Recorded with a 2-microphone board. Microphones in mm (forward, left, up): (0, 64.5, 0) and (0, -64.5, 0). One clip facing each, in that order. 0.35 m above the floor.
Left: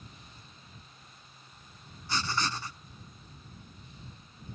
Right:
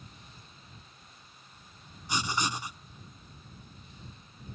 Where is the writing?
15° right (ahead or behind).